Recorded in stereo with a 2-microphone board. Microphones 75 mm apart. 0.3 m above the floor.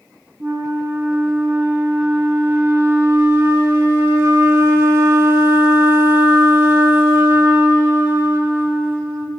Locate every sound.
0.4 s a flute: 35° right (ahead or behind), 0.6 m